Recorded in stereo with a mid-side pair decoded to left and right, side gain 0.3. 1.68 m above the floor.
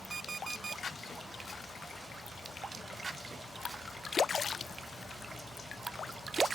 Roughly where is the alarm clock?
Ahead right.